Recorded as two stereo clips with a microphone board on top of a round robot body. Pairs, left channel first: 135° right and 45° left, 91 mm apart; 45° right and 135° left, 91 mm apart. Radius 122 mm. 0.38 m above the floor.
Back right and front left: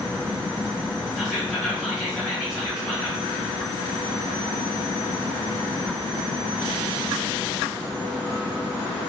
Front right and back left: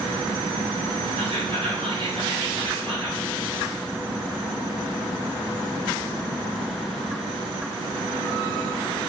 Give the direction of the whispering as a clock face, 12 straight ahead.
8 o'clock.